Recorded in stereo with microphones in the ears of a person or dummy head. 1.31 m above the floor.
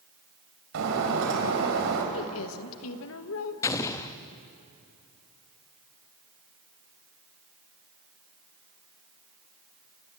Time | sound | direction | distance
0.7 | breaking glass | 75° right (ahead or behind) | 4 m
2.1 | a woman speaking | 75° left (ahead or behind) | 1.5 m
3.6 | an explosion | 20° left (ahead or behind) | 0.8 m